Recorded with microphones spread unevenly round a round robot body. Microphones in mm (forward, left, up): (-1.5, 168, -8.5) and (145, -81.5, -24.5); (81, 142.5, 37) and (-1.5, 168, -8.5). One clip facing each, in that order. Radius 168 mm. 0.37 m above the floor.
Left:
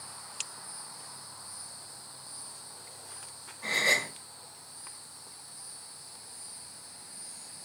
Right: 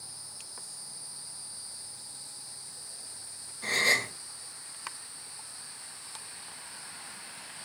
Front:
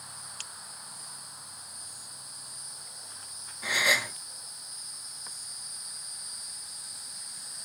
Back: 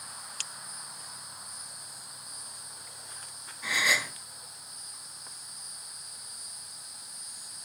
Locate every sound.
3.6 s a gasp: 75° right, 1.8 m